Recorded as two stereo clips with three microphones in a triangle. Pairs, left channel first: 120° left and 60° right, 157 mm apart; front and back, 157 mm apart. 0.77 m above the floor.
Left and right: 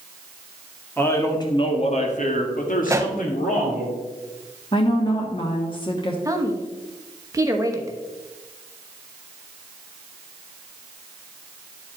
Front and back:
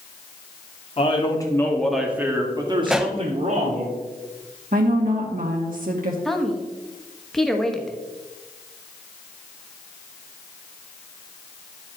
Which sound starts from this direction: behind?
A woman speaking, at 4.7 s.